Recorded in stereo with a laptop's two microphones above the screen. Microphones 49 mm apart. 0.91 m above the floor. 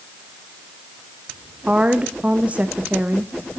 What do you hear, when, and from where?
1.7 s a woman speaking: 25° right (ahead or behind), 0.6 m